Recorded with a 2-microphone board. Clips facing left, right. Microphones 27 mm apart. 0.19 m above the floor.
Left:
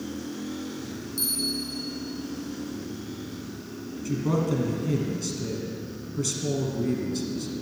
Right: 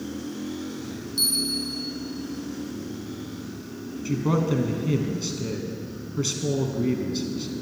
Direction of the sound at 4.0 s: 30° right (ahead or behind).